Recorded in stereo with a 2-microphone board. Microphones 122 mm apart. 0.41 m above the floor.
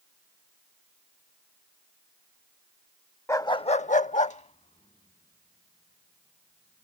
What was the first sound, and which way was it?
A dog barking, 20° left (ahead or behind).